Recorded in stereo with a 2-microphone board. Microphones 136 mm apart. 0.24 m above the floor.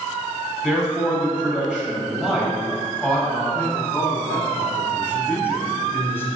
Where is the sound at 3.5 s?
15° left (ahead or behind), 1.2 m.